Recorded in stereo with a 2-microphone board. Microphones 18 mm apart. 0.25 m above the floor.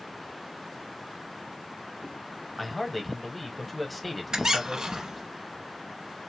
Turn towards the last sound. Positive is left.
turn(degrees=-45)  # may be behind; listen again after turning